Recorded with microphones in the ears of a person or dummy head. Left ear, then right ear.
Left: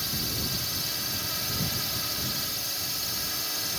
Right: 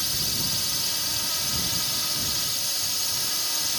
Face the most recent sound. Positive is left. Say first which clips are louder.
# right 4 dB
turn(degrees=-20)  # may be behind; listen again after turning